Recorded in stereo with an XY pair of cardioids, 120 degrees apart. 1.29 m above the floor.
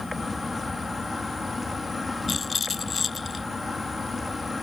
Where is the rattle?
30° left.